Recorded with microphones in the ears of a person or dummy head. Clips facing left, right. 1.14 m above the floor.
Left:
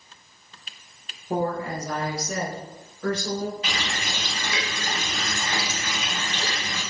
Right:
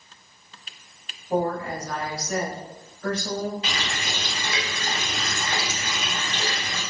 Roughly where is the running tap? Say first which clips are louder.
Even; right.